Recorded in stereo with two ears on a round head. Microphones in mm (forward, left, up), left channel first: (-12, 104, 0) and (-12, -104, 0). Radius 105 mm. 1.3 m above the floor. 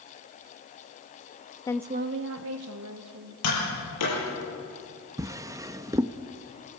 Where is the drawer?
15° right (ahead or behind), 0.6 m.